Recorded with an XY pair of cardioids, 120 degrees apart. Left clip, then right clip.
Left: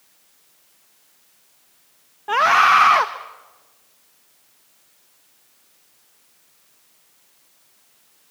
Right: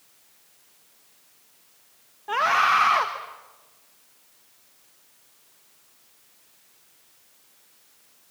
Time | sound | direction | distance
2.3 | a scream | 35° left | 1.3 m